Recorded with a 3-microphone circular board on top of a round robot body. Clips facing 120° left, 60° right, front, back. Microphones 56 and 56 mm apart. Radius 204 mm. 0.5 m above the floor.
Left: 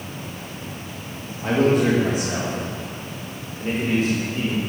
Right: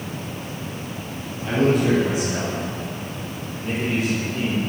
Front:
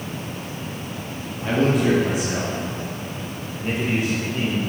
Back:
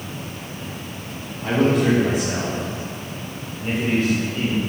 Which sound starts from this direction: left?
A man speaking, at 1.4 s.